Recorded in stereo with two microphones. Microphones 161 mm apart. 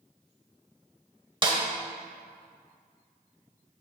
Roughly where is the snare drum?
Right.